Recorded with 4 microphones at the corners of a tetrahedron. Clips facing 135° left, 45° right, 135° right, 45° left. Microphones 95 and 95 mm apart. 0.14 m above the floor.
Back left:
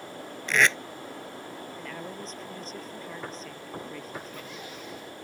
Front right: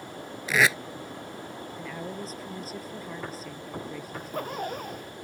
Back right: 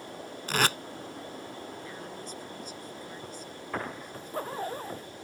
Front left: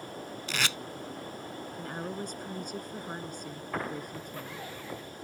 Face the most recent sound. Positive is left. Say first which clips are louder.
# front right 7 dB, back right 6 dB
turn(degrees=-85)